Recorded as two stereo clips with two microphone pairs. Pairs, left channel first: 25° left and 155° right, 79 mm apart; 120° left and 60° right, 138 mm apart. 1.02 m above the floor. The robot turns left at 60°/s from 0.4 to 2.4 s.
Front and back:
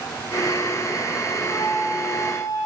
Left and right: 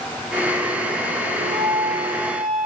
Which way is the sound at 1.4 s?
75° right.